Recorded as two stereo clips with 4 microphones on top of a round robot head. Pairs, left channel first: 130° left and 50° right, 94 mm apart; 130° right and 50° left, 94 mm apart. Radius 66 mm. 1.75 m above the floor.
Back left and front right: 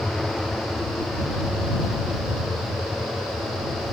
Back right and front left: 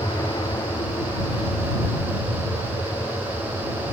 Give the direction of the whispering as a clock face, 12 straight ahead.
No whispering in this recording.